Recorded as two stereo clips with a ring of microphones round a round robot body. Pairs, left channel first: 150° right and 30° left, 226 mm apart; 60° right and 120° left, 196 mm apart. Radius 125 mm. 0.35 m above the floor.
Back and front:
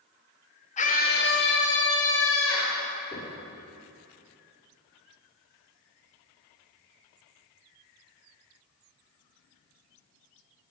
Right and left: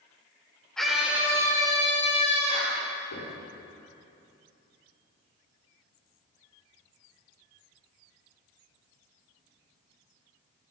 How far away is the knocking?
About 5.5 m.